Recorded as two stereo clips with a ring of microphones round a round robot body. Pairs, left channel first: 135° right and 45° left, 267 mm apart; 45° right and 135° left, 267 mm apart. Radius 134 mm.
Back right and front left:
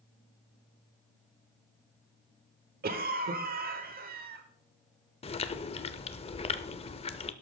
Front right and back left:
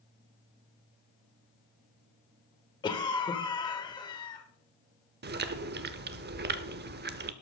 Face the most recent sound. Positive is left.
turn(degrees=165)